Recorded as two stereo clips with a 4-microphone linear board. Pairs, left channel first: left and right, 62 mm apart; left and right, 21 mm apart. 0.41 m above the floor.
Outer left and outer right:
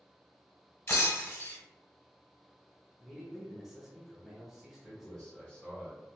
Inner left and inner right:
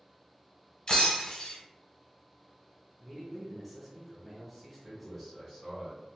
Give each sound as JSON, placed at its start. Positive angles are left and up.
{"t": 0.9, "sound": "breaking glass", "side_deg": 40, "distance_m": 0.8}
{"t": 3.0, "sound": "a man speaking", "side_deg": -5, "distance_m": 0.9}
{"t": 4.8, "sound": "a man speaking", "side_deg": 20, "distance_m": 1.3}